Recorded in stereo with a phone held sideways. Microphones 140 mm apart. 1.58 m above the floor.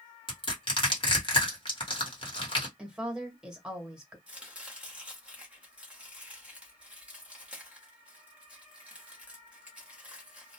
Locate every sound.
0.3 s crushing: 40° left (ahead or behind), 1.2 m
2.8 s a woman speaking: 5° right (ahead or behind), 1.1 m
4.3 s chopping: 10° right (ahead or behind), 1.1 m